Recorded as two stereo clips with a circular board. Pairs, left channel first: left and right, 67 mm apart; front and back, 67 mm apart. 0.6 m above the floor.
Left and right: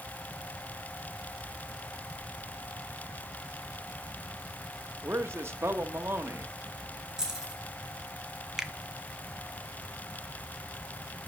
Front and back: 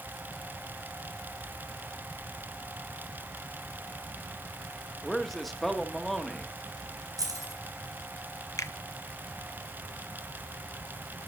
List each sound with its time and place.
5.0 s a man speaking: 85° right, 0.9 m
7.2 s keys jangling: 170° right, 3 m
8.6 s a finger snap: 10° right, 0.7 m